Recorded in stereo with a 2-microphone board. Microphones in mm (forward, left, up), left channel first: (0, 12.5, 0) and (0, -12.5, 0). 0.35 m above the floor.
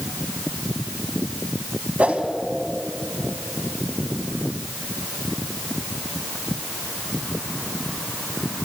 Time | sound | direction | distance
2.0 | a whoosh | 65° right (ahead or behind) | 2 m